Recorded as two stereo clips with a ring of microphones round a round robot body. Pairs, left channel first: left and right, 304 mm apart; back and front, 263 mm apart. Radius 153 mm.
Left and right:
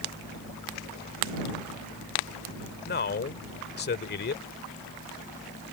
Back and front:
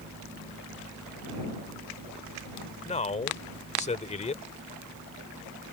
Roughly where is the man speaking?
Behind left.